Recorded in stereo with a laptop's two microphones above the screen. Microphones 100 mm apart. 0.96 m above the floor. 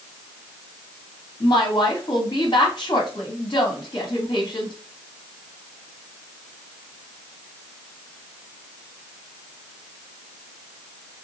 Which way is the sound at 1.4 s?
50° left (ahead or behind).